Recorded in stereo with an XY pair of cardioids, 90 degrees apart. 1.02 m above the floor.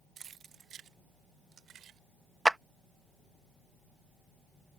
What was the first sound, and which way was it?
Keys jangling, 55° right.